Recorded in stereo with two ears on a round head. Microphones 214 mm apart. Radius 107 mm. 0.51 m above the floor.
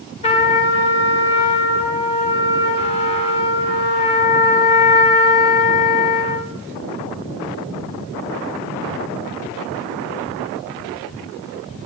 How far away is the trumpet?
About 1.1 m.